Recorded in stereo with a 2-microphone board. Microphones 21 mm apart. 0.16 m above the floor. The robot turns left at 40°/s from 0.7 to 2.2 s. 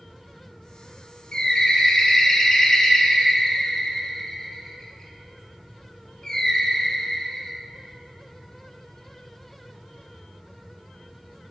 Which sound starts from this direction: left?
A bird, at 1.3 s.